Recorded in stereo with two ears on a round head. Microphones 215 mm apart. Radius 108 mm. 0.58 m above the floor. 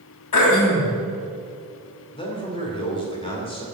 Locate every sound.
0.3 s throat clearing: 80° left, 2.5 m
2.1 s a man speaking: 20° left (ahead or behind), 2.0 m